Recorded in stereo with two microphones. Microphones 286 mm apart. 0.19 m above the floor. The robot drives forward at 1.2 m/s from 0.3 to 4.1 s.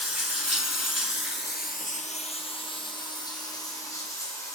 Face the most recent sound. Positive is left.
turn(degrees=10)  # may be behind; listen again after turning